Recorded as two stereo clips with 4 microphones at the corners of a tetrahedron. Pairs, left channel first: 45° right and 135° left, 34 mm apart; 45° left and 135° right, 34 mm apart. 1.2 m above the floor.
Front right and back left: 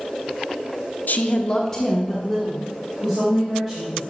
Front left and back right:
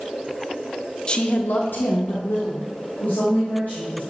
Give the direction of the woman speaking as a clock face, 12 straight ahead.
1 o'clock.